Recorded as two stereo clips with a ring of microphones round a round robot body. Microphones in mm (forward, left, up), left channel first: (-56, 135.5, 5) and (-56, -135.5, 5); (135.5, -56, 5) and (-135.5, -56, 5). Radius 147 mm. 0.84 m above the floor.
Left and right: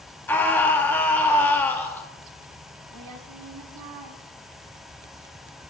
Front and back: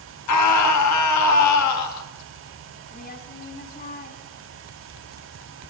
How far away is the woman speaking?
About 1.6 m.